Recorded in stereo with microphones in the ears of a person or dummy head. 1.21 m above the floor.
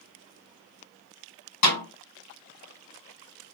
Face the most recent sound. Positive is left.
turn(degrees=70)  # may be behind; listen again after turning